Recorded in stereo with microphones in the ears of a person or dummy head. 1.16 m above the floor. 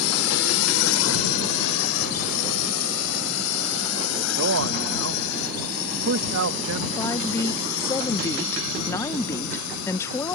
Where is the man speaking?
75° right (ahead or behind).